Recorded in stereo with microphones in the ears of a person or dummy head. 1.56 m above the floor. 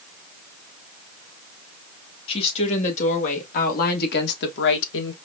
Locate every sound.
2.3 s a woman speaking: 35° left (ahead or behind), 2.5 m; by 5.1 s 75° left (ahead or behind), 1.4 m